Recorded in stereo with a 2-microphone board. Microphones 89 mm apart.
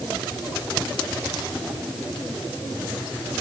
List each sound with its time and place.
Only background noise.